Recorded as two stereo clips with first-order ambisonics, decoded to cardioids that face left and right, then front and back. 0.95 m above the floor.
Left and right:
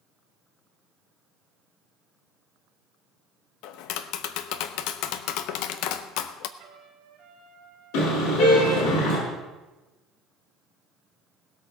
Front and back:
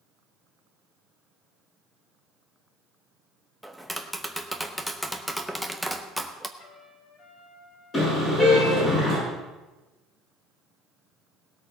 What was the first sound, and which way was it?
Tapping, 85° left.